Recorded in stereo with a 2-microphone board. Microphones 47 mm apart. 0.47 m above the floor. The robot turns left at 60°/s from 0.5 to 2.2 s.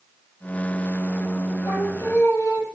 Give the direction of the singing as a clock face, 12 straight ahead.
8 o'clock.